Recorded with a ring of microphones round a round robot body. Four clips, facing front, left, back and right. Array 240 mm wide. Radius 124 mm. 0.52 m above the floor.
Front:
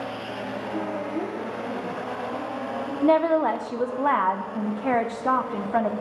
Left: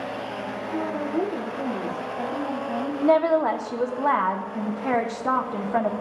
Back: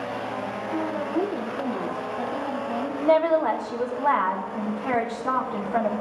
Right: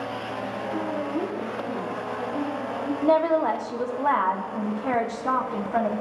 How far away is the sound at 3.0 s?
About 0.7 m.